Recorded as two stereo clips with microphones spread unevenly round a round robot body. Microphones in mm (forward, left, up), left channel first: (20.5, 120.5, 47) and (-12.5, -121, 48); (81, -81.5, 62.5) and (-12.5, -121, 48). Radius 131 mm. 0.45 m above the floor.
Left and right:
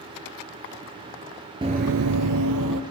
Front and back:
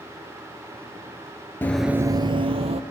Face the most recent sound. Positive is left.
turn(degrees=-135)